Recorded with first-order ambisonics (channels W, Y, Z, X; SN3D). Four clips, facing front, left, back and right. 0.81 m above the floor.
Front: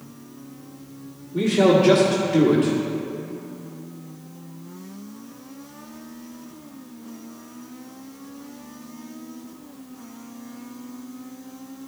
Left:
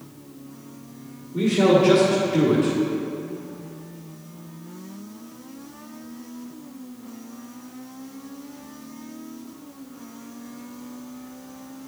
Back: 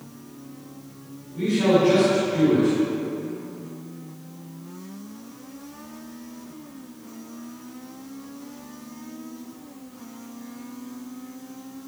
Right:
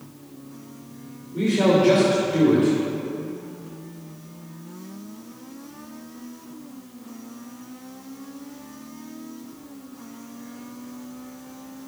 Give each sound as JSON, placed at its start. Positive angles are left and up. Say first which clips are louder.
{"t": 1.3, "sound": "a man speaking", "louder": "left 1 dB, front 3 dB", "azimuth_deg": 10, "distance_m": 1.5}